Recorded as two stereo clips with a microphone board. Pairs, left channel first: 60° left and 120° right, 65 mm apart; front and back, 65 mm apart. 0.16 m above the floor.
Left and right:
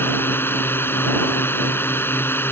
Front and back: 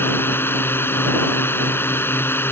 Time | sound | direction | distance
0.0 | a drone | 30° left | ?